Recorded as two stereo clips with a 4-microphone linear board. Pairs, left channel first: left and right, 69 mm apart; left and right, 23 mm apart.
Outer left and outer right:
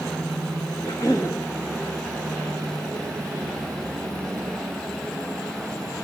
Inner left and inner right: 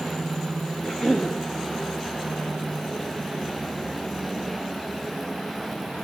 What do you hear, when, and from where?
0.8 s a cough: 50° left (ahead or behind), 2 m